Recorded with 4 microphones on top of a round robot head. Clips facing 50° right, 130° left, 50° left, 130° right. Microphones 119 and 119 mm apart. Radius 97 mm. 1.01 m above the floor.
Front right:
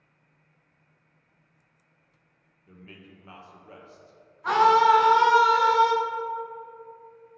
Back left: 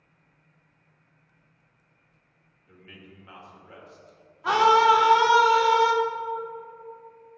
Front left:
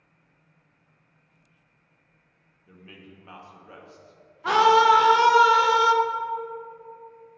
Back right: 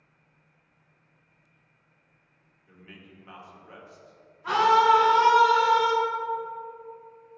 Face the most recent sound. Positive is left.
turn(degrees=50)